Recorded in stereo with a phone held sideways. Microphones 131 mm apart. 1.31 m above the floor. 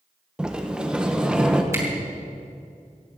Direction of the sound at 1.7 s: 20° right (ahead or behind).